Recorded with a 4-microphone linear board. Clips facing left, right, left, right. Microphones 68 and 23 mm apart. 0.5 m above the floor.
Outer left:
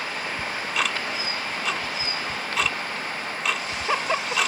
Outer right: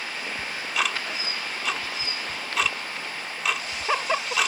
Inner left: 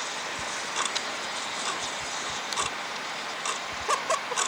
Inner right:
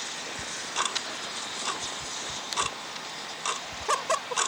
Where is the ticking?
5° right (ahead or behind).